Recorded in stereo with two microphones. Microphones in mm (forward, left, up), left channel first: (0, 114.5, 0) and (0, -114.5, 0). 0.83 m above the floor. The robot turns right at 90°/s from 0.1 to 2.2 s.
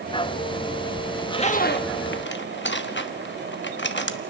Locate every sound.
1.1 s a zipper: 5° left (ahead or behind), 1.1 m; by 4.2 s 50° left (ahead or behind), 1.1 m